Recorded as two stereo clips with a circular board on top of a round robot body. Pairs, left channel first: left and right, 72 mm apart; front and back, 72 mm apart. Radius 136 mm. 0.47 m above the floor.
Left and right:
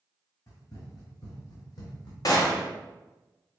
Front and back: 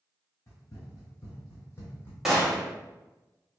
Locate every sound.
0.5 s running footsteps: 55° left, 1.9 m; by 2.1 s 60° left, 1.1 m
2.2 s a gunshot: 95° left, 1.4 m